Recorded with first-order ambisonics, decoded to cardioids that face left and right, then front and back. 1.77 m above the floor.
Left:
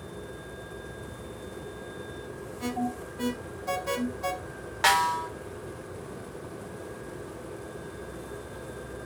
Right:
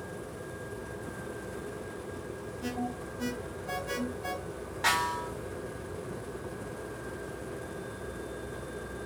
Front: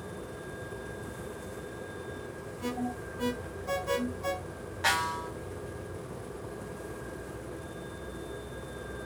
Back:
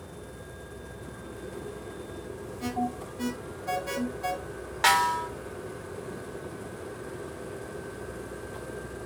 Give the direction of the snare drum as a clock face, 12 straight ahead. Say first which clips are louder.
Left 5 dB, back 6 dB; 8 o'clock.